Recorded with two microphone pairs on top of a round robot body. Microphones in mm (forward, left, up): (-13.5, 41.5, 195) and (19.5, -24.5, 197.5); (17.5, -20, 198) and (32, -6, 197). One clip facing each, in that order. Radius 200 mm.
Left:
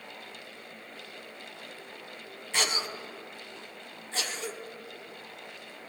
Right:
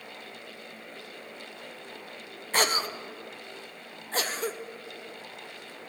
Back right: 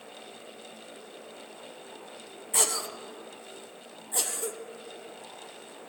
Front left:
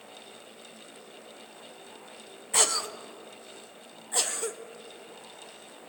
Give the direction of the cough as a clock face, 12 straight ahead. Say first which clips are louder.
Right 5 dB, front left 2 dB; 1 o'clock.